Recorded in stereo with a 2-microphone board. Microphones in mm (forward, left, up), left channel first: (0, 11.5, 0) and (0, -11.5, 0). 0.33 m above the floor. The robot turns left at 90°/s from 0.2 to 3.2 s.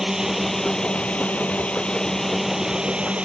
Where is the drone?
160° right; by 3.3 s 70° right.